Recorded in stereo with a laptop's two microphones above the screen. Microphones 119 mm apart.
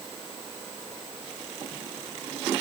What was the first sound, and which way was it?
Only background noise.